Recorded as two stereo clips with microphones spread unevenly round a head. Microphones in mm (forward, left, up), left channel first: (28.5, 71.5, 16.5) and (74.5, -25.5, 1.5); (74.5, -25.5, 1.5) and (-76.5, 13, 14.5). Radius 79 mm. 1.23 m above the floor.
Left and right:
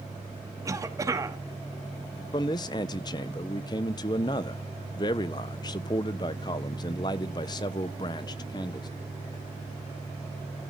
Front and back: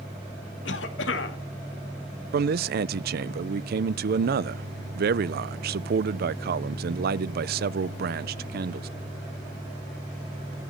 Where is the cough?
5° right, 2 m.